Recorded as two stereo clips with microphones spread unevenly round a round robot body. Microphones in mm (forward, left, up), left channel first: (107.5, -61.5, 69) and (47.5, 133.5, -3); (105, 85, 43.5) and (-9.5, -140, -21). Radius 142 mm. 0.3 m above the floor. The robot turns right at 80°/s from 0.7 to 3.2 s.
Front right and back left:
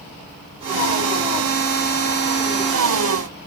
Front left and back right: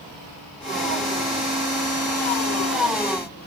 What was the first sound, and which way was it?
Only background noise.